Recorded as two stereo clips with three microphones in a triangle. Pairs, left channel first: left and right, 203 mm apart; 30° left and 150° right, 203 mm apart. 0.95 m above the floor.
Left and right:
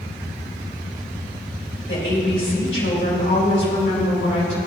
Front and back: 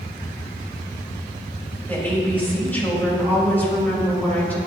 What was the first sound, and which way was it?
A woman speaking, 110° left.